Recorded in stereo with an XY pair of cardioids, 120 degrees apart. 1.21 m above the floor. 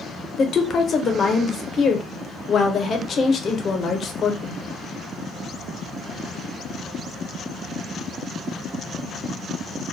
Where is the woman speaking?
45° left, 0.6 m.